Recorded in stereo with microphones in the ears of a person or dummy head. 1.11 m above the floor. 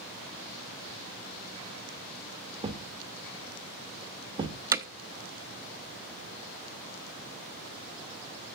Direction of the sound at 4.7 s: 15° right (ahead or behind).